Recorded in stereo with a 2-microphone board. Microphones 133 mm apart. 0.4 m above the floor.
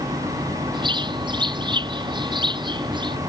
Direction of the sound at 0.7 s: 35° right (ahead or behind).